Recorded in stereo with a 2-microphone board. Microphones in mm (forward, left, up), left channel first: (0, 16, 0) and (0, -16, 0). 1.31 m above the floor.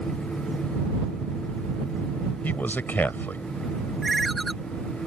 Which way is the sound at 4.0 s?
Centre (ahead or behind).